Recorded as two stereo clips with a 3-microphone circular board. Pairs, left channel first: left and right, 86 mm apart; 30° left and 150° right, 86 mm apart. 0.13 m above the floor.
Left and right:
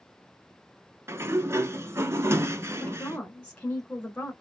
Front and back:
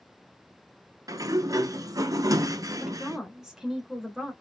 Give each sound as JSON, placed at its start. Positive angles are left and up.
{"t": 1.1, "sound": "a sliding door", "azimuth_deg": -135, "distance_m": 0.7}
{"t": 2.8, "sound": "a woman speaking", "azimuth_deg": 140, "distance_m": 1.7}